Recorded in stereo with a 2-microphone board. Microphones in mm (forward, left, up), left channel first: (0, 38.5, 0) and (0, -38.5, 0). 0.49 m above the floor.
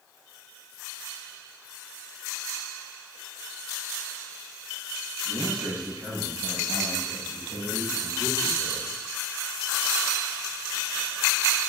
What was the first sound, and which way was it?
A man speaking, 65° right (ahead or behind).